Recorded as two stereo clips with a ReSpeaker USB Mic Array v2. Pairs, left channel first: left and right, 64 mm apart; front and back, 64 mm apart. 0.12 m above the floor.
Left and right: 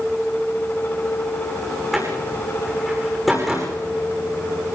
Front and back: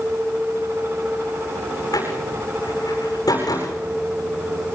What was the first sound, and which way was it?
A door slam, 5° right.